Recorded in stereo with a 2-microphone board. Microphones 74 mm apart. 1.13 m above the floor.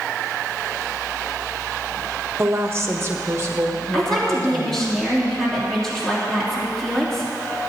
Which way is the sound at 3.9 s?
5° left (ahead or behind).